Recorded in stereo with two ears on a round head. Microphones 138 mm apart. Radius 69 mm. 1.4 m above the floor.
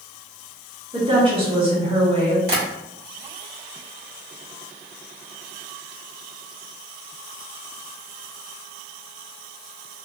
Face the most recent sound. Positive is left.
turn(degrees=-70)  # may be behind; listen again after turning